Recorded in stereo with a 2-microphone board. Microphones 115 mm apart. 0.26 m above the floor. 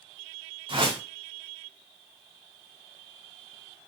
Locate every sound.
0.7 s a whoosh: 50° right (ahead or behind), 1.2 m